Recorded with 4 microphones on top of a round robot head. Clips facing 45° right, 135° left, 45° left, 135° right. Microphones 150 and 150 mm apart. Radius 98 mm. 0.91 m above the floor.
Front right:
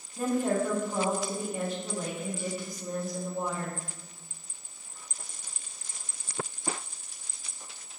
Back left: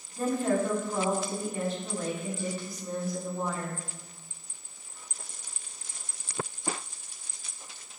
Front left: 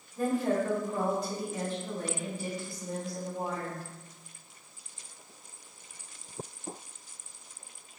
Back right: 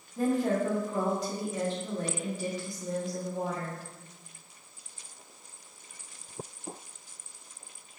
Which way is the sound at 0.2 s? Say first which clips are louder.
Even, back right 1 dB; 125° right.